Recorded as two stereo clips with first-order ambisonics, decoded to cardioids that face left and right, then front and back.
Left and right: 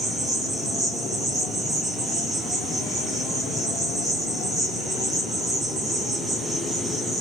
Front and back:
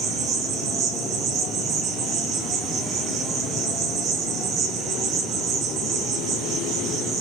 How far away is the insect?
About 1.8 m.